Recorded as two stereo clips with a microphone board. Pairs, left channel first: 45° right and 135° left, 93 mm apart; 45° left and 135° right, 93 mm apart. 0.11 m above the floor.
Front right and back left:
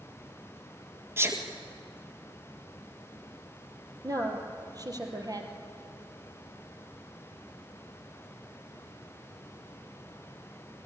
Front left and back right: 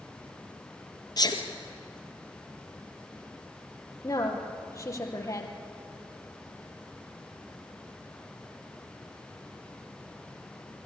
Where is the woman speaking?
95° left, 3 m.